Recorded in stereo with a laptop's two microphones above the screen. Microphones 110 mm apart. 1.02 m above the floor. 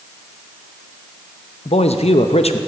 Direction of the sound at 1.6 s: 70° left (ahead or behind).